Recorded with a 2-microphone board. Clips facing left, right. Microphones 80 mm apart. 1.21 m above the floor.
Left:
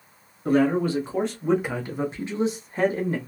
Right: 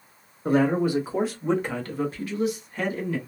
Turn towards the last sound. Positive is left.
turn(degrees=35)  # may be behind; listen again after turning